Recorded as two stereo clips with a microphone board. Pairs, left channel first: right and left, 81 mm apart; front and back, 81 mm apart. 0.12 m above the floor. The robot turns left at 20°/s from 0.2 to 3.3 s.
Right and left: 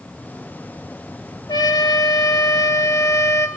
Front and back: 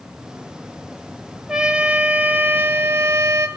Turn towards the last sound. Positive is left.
turn(degrees=-135)